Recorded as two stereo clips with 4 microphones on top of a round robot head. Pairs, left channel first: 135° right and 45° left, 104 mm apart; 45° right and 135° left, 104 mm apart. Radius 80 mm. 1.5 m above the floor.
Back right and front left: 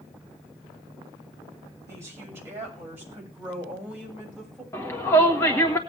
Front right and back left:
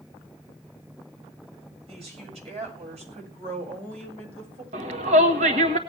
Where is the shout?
155° left, 1.8 m.